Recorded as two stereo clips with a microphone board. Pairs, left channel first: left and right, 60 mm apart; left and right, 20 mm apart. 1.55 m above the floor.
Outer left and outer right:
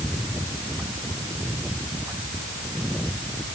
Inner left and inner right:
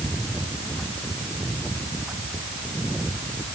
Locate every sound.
Only background noise.